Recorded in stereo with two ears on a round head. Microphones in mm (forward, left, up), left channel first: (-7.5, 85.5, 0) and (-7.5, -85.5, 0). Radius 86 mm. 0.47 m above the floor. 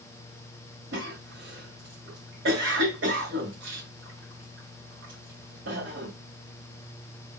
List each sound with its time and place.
0.9 s a cough: 70° right (ahead or behind), 1.8 m